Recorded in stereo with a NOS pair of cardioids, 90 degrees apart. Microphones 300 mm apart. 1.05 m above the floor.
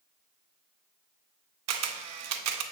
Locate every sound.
1.7 s a camera shutter: 60° right, 0.8 m